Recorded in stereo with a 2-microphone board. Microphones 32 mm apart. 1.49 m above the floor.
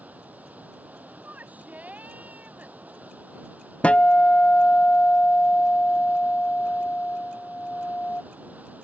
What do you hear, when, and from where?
0.0 s running water: 60° right (ahead or behind)
1.2 s a shout: 55° right (ahead or behind)
3.8 s a guitar: 45° left (ahead or behind)